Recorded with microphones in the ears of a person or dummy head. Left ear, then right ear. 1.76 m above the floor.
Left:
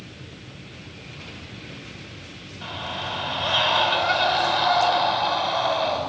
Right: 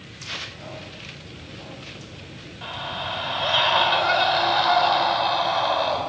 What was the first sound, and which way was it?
A scream, 5° right (ahead or behind).